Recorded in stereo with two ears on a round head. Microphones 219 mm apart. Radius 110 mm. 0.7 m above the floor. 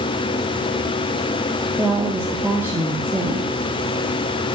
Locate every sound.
1.8 s a woman speaking: 10° right (ahead or behind), 1.2 m